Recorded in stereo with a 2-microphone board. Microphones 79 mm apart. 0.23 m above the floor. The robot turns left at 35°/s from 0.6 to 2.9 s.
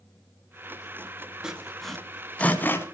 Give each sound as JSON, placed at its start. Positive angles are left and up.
{"t": 1.4, "sound": "sawing", "side_deg": -10, "distance_m": 1.8}